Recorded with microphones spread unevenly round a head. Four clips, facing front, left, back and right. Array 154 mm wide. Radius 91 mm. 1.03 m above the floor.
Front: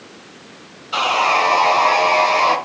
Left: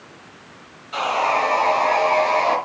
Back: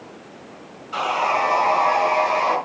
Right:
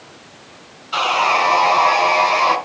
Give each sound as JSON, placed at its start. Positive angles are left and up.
{"t": 0.9, "sound": "sawing", "azimuth_deg": -45, "distance_m": 3.5}